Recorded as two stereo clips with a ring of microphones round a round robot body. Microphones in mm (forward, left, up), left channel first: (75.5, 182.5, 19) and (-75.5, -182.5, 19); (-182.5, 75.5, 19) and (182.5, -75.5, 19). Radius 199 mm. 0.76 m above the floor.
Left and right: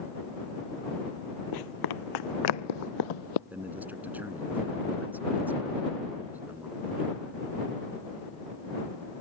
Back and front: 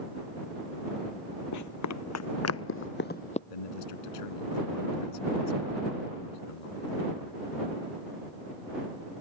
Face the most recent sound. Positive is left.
turn(degrees=160)